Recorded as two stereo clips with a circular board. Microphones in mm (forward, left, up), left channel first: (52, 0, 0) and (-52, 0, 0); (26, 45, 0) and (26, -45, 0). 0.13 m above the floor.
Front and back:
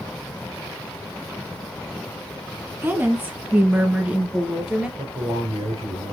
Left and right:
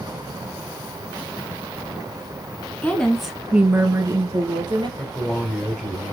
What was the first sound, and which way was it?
A woman speaking, 135° left.